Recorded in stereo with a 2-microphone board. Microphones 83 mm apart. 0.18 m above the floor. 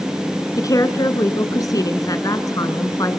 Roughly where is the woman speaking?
Left.